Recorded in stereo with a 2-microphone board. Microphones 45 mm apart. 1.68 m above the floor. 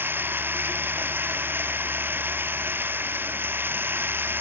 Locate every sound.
0.0 s running water: 50° right (ahead or behind)